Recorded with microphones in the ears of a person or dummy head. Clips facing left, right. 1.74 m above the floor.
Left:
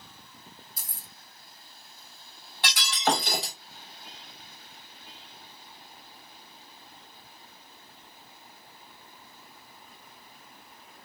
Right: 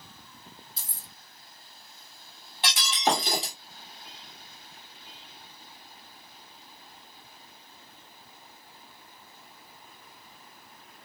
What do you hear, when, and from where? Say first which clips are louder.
0.8 s keys jangling: even; 25° right (ahead or behind), 1.6 m
2.6 s breaking glass: even; 25° right (ahead or behind), 1.8 m